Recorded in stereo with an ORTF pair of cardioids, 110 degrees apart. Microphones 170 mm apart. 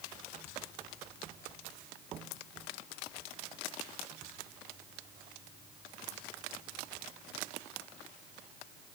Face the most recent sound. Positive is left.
No sound to turn to.